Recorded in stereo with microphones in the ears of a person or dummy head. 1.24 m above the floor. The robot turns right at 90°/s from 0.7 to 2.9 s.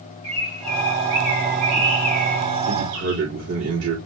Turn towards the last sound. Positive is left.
turn(degrees=-85)